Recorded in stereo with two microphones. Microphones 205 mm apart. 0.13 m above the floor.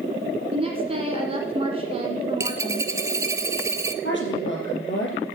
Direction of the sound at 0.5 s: 25° right (ahead or behind).